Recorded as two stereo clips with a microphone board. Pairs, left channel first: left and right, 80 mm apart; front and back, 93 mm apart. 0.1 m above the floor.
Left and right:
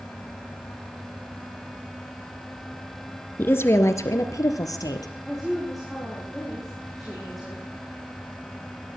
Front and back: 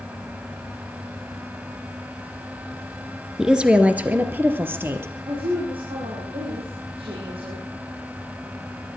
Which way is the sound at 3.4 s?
105° left.